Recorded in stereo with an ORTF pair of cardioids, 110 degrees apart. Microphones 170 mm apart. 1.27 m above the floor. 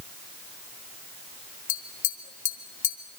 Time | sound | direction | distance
1.7 | tapping | 50° left | 2 m